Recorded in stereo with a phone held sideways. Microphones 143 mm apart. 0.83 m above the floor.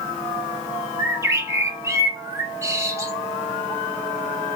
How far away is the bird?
About 1.2 m.